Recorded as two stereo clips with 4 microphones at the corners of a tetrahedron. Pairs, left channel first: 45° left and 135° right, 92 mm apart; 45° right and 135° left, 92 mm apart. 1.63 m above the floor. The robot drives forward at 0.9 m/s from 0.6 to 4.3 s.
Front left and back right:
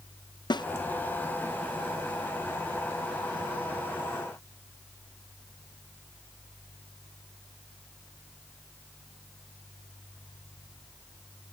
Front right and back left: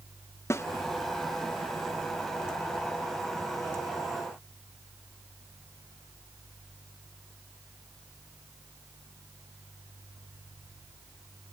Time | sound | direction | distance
0.5 | a snare drum | 15° left | ?